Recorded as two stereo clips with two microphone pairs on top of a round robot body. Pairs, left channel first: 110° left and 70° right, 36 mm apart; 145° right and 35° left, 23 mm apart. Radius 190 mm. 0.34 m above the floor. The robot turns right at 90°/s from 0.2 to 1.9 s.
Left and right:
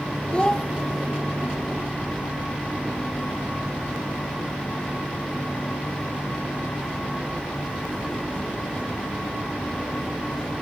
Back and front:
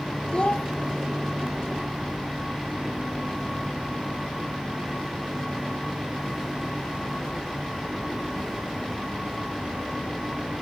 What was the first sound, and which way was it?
A child speaking, 165° left.